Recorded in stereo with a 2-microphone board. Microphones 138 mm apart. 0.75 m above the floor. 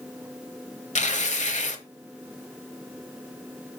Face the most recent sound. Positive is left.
turn(degrees=60)  # may be behind; listen again after turning